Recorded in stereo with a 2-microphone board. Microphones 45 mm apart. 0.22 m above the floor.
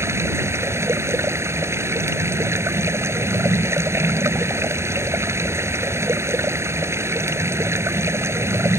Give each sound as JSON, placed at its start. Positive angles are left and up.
{"t": 0.0, "sound": "running water", "side_deg": -70}